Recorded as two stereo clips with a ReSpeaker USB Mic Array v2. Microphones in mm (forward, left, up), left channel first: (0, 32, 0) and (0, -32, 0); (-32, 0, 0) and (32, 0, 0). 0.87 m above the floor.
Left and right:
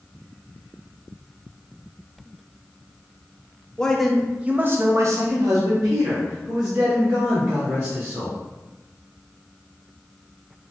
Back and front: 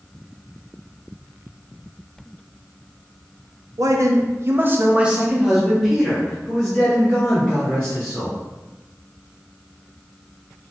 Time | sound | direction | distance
3.8 | a man speaking | 15° left | 0.6 m